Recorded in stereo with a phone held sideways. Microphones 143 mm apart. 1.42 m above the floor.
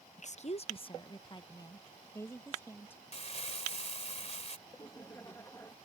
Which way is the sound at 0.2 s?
60° left (ahead or behind).